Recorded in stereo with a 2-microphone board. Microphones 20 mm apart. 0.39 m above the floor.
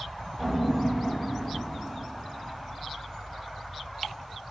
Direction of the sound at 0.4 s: 40° left (ahead or behind).